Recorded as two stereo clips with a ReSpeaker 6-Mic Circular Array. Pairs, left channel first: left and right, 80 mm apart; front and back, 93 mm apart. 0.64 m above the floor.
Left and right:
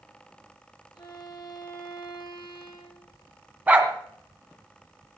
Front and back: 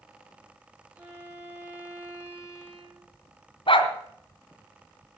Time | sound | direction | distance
0.9 | a violin | 115° left | 9.5 m
3.7 | a dog barking | 20° right | 2 m